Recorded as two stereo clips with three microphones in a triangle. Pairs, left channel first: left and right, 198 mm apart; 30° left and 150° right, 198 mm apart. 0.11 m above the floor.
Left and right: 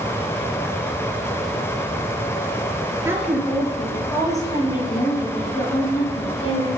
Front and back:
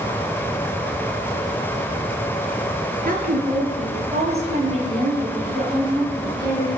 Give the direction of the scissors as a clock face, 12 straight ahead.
I don't hear scissors.